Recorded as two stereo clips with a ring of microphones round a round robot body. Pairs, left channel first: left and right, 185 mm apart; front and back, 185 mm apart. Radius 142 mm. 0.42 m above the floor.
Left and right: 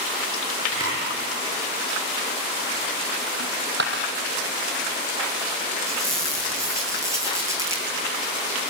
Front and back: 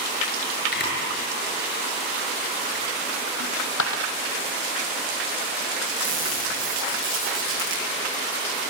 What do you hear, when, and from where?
0.7 s a camera shutter: 25° left, 8.5 m
3.4 s a dropped coin: 40° right, 1.7 m
5.9 s a squeak: 165° right, 8 m